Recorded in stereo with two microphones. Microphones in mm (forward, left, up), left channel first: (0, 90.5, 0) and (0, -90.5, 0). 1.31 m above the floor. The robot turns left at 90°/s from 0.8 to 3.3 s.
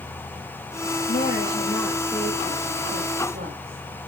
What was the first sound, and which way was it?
A woman speaking, 80° left.